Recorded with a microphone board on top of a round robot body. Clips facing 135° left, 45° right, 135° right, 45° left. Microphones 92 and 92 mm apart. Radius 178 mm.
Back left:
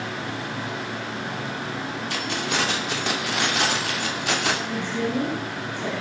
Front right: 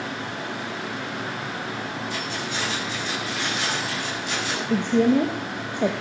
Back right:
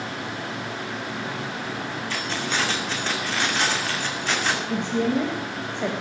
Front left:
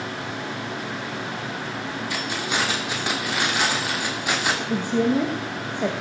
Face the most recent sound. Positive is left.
turn(degrees=-35)